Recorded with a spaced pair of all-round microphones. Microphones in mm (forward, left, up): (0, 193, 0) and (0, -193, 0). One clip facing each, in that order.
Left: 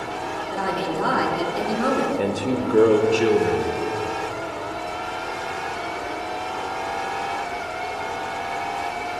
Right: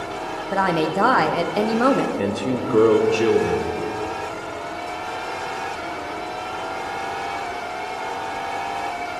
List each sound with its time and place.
0.5 s a woman speaking: 85° right, 0.6 m
2.2 s a man speaking: 10° right (ahead or behind), 0.5 m